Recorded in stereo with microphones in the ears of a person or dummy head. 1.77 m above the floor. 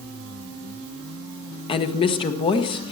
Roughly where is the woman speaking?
Left.